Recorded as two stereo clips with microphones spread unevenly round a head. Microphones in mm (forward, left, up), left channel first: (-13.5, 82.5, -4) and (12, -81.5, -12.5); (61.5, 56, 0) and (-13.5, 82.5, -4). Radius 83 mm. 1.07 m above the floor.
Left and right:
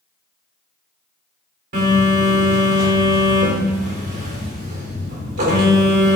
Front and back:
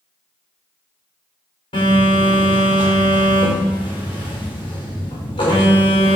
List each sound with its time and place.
1.7 s a phone buzzing: 50° right, 4 m